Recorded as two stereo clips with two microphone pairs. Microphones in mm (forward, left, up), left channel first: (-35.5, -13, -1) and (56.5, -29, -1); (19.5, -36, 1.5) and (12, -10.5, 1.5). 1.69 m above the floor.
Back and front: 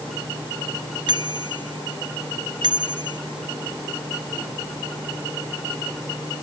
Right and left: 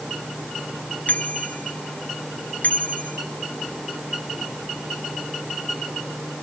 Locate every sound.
1.1 s a bicycle bell: 50° right